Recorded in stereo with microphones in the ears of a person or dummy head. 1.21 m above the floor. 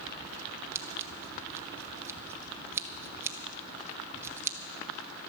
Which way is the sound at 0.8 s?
10° right (ahead or behind).